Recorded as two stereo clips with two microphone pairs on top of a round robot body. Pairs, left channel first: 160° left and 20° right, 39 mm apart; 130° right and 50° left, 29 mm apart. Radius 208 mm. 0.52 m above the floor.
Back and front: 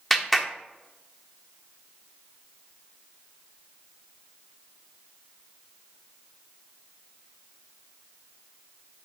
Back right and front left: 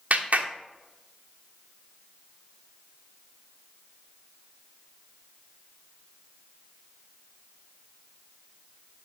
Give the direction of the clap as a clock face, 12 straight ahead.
9 o'clock.